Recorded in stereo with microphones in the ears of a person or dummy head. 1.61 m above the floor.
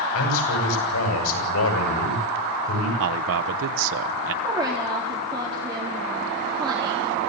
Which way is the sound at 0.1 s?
85° left.